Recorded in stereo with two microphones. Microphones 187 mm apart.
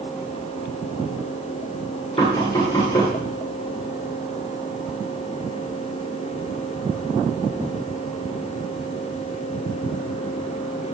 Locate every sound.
2.2 s knocking: 20° left (ahead or behind), 9 m